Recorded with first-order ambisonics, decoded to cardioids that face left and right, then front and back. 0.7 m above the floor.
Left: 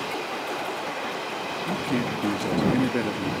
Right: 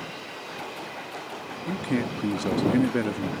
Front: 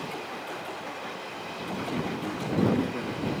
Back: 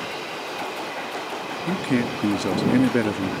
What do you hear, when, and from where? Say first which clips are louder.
1.7 s a man speaking: right 1 dB, back 8 dB; 170° right